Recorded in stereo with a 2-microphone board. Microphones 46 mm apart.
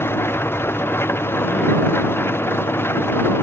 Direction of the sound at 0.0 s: 60° left (ahead or behind).